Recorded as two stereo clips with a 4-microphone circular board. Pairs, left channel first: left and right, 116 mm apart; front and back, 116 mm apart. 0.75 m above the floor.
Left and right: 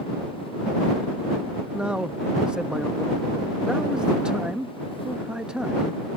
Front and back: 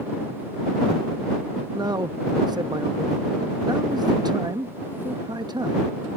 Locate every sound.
1.7 s a man speaking: 165° right